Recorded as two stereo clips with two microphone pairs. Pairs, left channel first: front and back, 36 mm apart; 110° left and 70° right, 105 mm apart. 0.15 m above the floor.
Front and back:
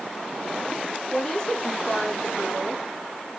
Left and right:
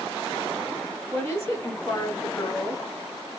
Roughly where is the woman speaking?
Ahead left.